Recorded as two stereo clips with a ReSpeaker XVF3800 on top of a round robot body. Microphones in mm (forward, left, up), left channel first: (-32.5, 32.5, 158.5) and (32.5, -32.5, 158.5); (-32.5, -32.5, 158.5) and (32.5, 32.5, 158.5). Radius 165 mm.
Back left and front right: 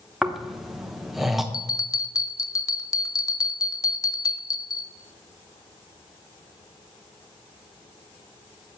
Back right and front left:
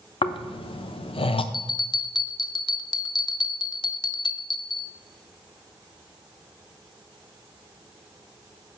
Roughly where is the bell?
Behind.